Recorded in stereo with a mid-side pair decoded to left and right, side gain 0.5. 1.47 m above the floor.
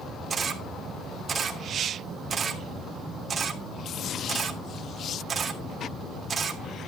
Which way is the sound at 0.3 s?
45° right.